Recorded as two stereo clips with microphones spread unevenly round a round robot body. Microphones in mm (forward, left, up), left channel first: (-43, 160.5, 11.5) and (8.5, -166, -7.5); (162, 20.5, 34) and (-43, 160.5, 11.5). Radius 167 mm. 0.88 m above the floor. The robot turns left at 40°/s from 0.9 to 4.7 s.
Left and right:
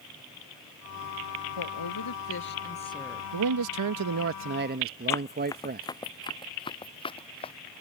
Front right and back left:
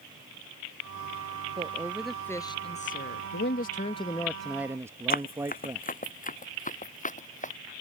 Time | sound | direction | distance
1.6 | a woman speaking | 75° left | ?
3.3 | a man speaking | 80° right | ?
5.1 | running footsteps | 20° left | ?